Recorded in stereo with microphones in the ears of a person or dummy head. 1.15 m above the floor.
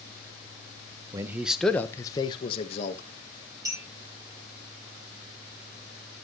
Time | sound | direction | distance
1.1 | a man speaking | 20° right (ahead or behind) | 0.9 m
3.6 | a clink | 20° right (ahead or behind) | 4.5 m